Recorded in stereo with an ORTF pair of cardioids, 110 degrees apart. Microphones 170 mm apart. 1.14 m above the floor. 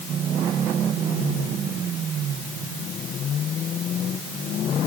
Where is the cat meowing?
I don't hear a cat meowing.